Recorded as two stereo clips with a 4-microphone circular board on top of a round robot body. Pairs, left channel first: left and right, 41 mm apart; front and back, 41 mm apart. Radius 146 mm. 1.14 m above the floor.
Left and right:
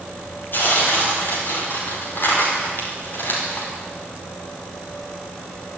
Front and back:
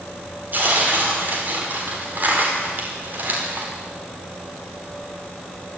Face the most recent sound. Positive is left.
turn(degrees=130)